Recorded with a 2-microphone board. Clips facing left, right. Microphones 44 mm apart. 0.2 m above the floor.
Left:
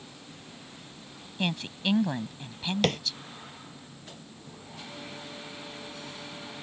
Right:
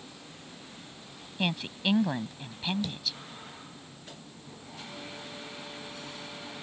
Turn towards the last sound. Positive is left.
turn(degrees=80)